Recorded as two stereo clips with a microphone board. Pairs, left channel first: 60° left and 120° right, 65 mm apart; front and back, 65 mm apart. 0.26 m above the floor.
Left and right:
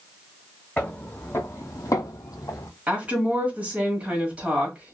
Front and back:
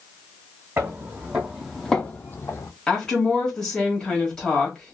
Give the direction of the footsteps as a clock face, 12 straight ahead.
8 o'clock.